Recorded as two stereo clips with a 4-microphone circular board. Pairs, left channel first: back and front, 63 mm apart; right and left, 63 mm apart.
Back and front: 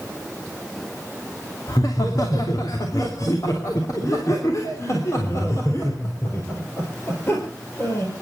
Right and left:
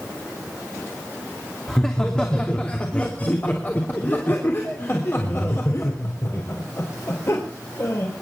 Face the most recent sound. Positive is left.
turn(degrees=-130)